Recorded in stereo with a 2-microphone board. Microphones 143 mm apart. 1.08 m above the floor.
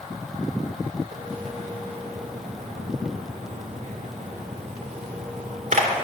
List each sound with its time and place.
1.1 s a splash: 65° right (ahead or behind), 2 m